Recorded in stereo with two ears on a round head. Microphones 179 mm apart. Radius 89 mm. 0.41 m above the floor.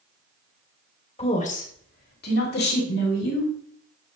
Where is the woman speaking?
30° left (ahead or behind), 1.4 m; by 3.5 s 60° left (ahead or behind), 3 m.